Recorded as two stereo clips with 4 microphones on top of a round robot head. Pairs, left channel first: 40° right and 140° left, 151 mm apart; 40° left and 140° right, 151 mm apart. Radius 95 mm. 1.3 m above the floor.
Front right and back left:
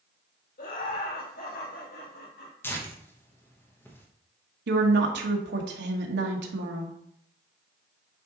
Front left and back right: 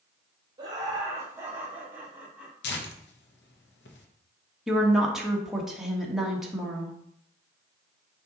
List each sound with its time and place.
0.6 s laughter: 75° right, 2.5 m; by 2.9 s 55° right, 4 m
2.6 s tearing paper: 35° left, 1.2 m
4.7 s a woman speaking: 135° left, 1.6 m